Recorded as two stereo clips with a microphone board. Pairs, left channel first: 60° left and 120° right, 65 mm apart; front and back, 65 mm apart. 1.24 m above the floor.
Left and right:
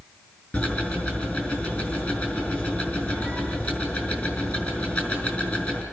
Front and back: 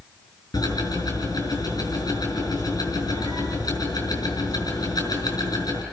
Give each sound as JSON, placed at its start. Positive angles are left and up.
{"t": 0.5, "sound": "ticking", "azimuth_deg": 0, "distance_m": 6.0}